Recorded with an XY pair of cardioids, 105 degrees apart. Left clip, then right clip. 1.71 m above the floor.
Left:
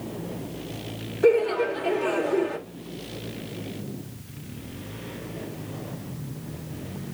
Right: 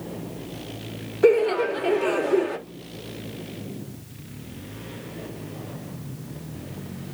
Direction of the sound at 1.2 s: 25° right.